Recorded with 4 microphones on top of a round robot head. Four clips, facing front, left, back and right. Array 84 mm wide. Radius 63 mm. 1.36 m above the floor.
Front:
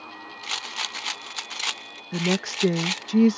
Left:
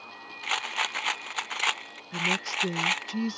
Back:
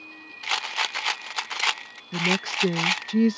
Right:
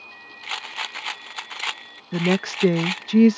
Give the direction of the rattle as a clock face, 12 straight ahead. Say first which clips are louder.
Left 2 dB, back 6 dB; 7 o'clock.